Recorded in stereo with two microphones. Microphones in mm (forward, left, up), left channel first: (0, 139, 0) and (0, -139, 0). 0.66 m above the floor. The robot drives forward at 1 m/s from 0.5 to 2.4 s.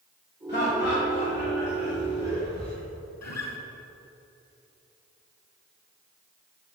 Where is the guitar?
70° left (ahead or behind), 0.9 m.